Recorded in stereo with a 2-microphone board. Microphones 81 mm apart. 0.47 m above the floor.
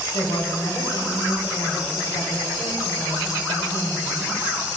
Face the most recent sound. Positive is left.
turn(degrees=60)  # may be behind; listen again after turning